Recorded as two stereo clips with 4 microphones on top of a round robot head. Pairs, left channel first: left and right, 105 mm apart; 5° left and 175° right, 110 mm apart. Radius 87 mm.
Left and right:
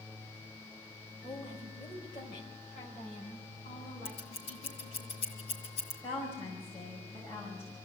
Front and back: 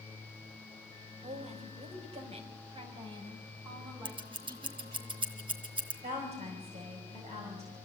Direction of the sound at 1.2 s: 165° left.